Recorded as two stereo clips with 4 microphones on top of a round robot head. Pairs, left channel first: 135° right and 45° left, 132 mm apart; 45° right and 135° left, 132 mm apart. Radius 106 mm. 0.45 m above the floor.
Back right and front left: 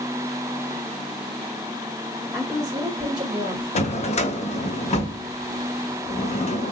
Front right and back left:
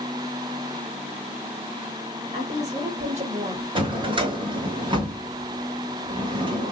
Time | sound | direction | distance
2.3 | a woman speaking | 115° left | 3 m
3.8 | a drawer | 175° right | 0.8 m